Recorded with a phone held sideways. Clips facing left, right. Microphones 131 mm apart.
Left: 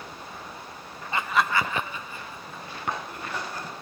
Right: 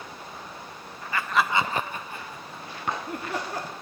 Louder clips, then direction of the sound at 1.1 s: Even; 25° left (ahead or behind).